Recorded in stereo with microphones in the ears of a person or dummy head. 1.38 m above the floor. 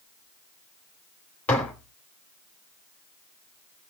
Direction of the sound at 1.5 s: 5° left (ahead or behind).